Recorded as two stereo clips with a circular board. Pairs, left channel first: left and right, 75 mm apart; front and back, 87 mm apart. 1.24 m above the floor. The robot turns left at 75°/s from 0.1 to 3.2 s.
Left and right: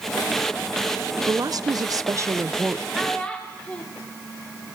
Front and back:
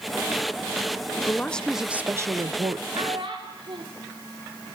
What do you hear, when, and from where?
1.3 s a woman speaking: 55° right, 0.6 m; by 2.8 s 175° right, 0.6 m
2.9 s a child speaking: 175° right, 1.6 m; by 3.8 s 165° left, 1.6 m